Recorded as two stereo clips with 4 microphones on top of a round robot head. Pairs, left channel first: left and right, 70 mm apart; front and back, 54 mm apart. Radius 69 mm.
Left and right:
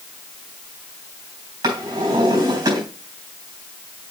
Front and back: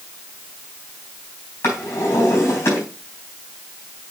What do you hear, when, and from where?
1.6 s a drawer: 55° right, 3.5 m